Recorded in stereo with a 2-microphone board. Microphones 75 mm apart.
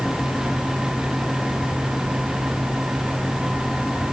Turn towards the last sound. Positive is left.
No sound to turn to.